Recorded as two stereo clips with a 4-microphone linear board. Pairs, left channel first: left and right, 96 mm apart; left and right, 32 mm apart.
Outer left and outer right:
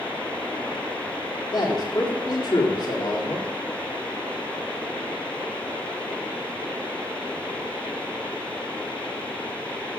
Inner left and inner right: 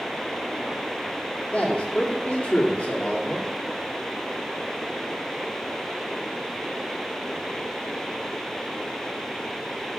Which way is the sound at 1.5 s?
55° left (ahead or behind).